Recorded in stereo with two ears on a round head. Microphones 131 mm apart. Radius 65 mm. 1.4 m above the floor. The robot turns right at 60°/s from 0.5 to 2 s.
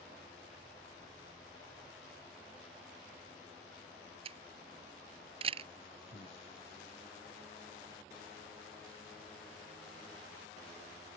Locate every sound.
4.2 s a camera shutter: 40° right (ahead or behind)
6.1 s breathing: 30° left (ahead or behind)